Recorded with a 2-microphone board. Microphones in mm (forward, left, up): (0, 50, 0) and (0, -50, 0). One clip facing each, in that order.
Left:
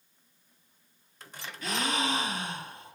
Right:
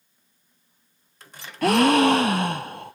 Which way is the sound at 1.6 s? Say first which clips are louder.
Right 14 dB; 70° right (ahead or behind).